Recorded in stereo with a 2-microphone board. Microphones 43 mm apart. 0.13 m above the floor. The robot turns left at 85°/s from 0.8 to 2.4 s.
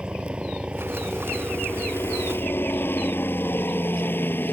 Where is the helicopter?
25° right (ahead or behind); by 4.5 s 50° left (ahead or behind).